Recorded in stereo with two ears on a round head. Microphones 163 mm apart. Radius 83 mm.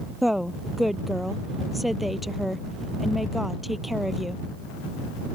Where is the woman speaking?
Centre (ahead or behind).